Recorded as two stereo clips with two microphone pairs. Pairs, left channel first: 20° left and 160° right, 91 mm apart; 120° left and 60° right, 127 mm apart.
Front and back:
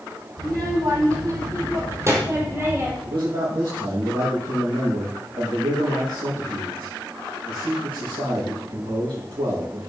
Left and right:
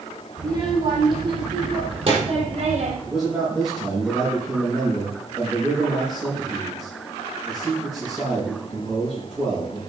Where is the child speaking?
115° right, 6.5 m; by 3.0 s 90° right, 4 m.